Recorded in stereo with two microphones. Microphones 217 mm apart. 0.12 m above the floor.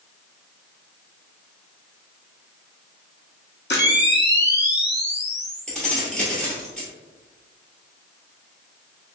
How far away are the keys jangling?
About 1.5 m.